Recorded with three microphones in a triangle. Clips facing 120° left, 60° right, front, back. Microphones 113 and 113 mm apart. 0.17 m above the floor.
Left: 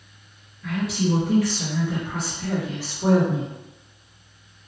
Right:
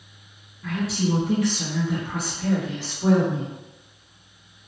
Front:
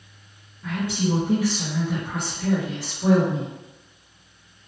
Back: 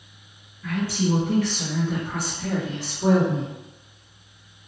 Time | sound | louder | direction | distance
0.6 | a woman speaking | left 1 dB, back 1 dB | 45° right | 1.6 m